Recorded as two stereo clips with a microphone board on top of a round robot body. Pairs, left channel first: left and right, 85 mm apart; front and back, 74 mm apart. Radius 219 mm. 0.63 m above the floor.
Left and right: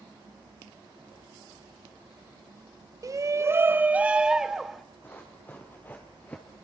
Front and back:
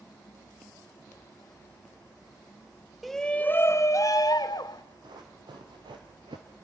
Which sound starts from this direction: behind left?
Running footsteps, at 5.0 s.